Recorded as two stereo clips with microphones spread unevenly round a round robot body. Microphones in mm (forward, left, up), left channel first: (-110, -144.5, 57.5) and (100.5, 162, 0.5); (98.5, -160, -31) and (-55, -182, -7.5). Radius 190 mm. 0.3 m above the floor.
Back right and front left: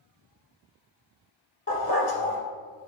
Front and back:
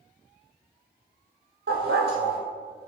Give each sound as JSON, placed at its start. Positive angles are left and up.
{"t": 1.7, "sound": "a dog barking", "azimuth_deg": 180, "distance_m": 3.5}